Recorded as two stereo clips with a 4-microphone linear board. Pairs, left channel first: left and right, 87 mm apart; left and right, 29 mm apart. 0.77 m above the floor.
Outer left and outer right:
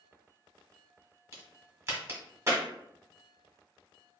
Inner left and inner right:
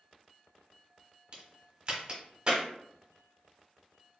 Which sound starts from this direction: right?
A crack, at 1.3 s.